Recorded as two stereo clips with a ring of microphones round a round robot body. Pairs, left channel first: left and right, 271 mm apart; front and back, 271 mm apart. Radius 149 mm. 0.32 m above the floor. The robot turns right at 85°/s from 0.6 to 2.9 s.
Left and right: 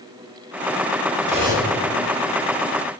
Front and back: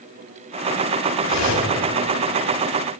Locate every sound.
1.2 s cutlery clinking: 35° right, 1.4 m; by 1.7 s 5° left, 1.4 m